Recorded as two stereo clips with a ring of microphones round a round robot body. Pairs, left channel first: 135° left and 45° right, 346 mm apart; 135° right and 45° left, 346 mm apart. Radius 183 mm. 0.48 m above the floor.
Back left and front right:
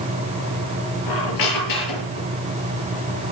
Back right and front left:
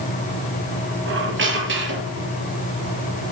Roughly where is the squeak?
Left.